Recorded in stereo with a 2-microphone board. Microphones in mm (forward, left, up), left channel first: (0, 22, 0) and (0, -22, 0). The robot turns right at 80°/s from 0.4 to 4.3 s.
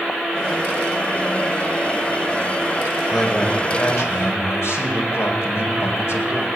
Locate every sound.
3.1 s a man speaking: straight ahead, 5.5 m; by 6.5 s 95° left, 5.5 m